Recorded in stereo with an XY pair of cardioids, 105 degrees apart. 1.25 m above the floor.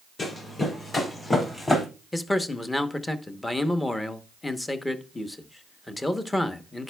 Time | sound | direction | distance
0.2 | running footsteps | 35° left | 4 m
2.1 | a man speaking | 15° left | 0.9 m